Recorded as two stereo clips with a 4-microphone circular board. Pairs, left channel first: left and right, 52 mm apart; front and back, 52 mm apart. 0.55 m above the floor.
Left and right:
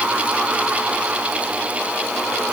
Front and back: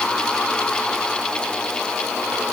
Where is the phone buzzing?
No phone buzzing in this recording.